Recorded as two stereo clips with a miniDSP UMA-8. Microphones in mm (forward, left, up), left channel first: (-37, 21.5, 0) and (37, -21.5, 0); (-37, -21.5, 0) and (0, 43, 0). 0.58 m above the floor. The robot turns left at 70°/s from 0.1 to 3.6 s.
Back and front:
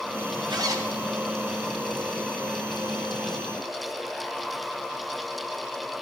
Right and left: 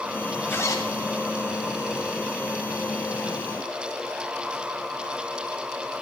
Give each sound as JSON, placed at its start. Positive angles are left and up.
{"t": 0.5, "sound": "a zipper", "azimuth_deg": -60, "distance_m": 2.5}